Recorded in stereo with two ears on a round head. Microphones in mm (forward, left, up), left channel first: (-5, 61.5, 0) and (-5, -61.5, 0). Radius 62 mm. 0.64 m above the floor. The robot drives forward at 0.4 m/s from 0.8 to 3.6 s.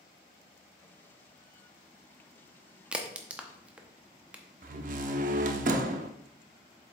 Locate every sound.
2.9 s a crack: 10° right (ahead or behind), 0.8 m
4.6 s a door slam: 65° right (ahead or behind), 0.7 m